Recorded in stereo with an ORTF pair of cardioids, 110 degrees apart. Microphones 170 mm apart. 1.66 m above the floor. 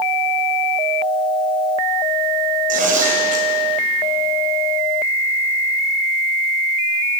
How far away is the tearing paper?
About 6.5 m.